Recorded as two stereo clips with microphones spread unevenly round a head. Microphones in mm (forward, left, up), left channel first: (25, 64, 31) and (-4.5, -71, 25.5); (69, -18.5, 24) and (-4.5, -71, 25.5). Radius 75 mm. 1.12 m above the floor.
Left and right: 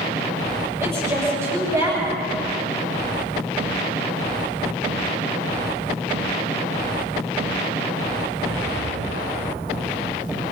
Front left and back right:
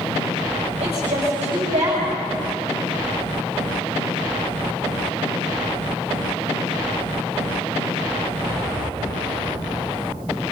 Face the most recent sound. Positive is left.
turn(degrees=-175)